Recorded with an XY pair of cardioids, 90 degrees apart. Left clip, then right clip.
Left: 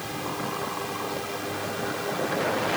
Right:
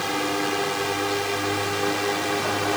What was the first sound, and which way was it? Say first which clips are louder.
A drone: right 7 dB; 70° right.